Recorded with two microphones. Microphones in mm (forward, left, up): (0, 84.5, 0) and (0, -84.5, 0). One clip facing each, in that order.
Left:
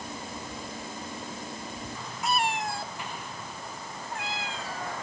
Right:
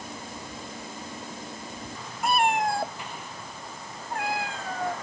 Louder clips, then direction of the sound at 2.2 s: Right 5 dB; 55° right (ahead or behind).